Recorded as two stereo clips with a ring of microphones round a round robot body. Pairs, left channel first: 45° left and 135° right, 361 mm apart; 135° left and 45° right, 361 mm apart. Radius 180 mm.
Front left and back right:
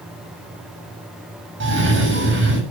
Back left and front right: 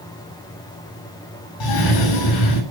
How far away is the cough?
About 6.5 m.